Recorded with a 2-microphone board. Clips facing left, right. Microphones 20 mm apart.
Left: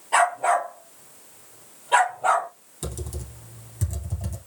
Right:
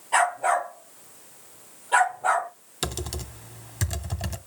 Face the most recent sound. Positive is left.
turn(degrees=-75)  # may be behind; listen again after turning